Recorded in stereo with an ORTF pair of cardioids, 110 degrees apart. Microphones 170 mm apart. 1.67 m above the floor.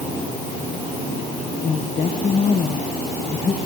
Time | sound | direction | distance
1.6 | a woman speaking | 35° left | 2 m